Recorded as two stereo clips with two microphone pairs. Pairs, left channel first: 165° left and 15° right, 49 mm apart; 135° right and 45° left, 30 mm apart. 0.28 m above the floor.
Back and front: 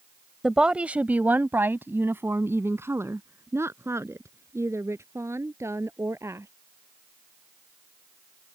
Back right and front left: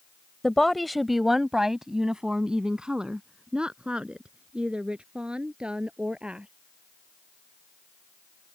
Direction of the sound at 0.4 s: 80° right.